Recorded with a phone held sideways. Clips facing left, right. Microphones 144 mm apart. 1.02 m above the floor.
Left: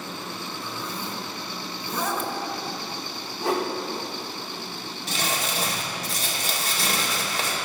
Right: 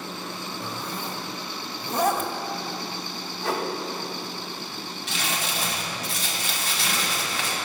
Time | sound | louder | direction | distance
0.6 | a zipper | right 1 dB | 45° right (ahead or behind) | 1.3 m
3.4 | a whoosh | left 3 dB | 20° left (ahead or behind) | 1.9 m
5.1 | crumpling | left 3 dB | 40° left (ahead or behind) | 2 m